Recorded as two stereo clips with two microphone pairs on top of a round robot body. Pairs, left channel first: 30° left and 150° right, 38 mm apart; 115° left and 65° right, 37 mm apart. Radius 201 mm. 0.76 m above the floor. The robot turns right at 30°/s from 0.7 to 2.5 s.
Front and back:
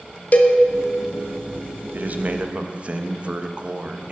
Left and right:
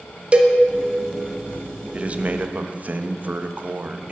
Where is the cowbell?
10° right, 1.4 m.